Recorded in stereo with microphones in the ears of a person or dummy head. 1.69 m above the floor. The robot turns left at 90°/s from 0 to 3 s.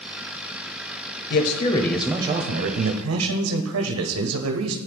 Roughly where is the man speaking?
Ahead left.